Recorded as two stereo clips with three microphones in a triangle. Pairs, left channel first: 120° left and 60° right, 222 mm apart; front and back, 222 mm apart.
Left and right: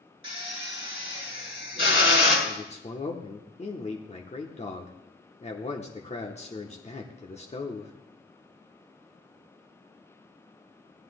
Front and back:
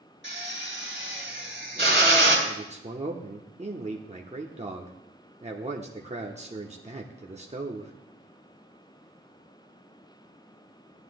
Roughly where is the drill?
Behind left.